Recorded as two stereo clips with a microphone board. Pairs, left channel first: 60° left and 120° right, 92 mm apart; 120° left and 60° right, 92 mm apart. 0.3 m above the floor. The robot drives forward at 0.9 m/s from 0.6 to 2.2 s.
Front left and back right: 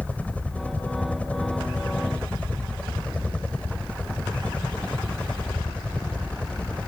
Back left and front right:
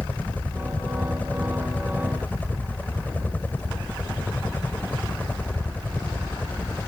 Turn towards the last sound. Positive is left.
turn(degrees=105)